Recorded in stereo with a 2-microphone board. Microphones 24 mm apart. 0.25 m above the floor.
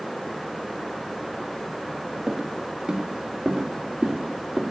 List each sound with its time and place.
2.3 s footsteps: 10° right (ahead or behind), 3 m; by 4.6 s 20° right (ahead or behind), 4 m